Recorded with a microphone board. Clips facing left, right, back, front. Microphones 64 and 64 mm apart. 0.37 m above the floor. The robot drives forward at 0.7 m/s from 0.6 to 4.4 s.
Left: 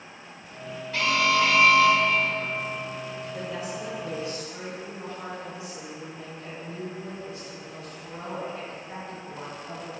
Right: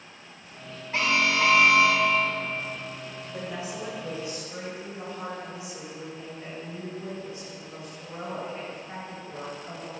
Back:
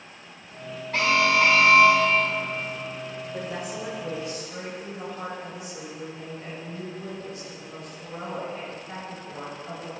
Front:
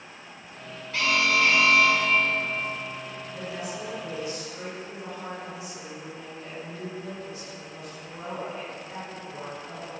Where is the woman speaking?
145° right, 3 m; by 9.9 s 150° right, 4 m.